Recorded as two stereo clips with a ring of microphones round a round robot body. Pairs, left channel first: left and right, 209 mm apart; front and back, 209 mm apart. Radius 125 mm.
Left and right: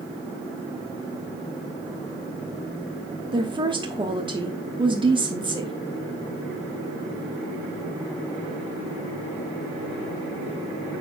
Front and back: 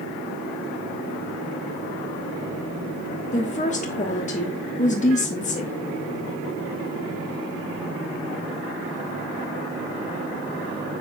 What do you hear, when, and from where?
3.3 s a woman speaking: 35° right, 1.3 m